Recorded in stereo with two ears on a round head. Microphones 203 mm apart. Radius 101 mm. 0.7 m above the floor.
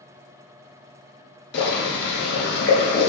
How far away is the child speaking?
I don't hear a child speaking.